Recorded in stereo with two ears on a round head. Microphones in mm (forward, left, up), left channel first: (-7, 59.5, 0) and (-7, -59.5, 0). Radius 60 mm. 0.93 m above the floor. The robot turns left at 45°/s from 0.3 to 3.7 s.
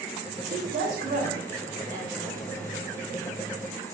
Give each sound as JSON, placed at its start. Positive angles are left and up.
{"t": 0.5, "sound": "a woman speaking", "azimuth_deg": -85, "distance_m": 2.0}